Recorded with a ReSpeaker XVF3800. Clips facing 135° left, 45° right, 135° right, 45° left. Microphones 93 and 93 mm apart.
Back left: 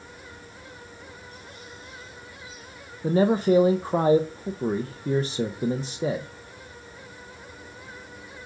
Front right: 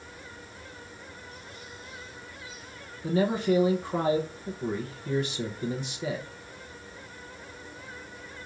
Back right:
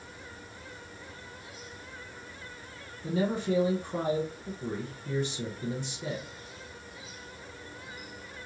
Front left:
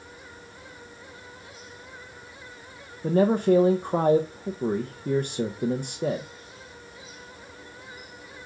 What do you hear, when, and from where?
3.0 s a man speaking: 80° left, 0.7 m